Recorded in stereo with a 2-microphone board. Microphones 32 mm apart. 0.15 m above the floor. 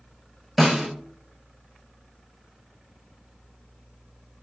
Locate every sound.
0.6 s a snare drum: 5° right (ahead or behind), 0.7 m